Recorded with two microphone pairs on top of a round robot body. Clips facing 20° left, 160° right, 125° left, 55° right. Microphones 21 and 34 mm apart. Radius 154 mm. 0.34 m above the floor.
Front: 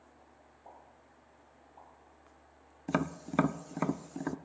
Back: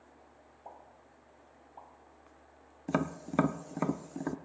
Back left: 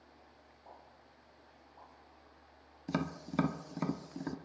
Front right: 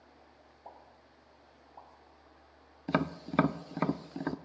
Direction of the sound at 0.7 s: 100° right.